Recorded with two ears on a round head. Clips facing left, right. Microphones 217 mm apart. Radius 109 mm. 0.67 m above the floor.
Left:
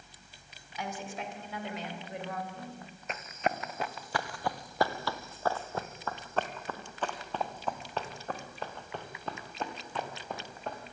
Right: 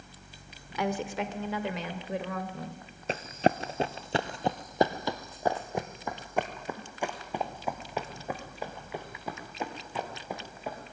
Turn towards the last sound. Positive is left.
turn(degrees=-10)  # may be behind; listen again after turning